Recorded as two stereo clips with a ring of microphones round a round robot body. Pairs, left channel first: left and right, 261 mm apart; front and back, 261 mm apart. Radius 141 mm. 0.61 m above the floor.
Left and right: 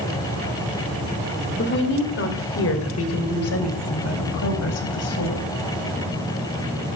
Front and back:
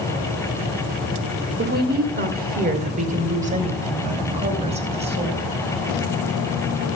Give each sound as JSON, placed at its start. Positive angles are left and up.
{"t": 1.6, "sound": "a woman speaking", "azimuth_deg": 130, "distance_m": 2.0}